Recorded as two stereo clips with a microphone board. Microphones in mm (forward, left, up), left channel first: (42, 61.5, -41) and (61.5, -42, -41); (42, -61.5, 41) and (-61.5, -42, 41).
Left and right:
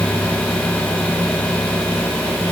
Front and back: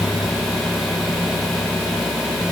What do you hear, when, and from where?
Only background noise.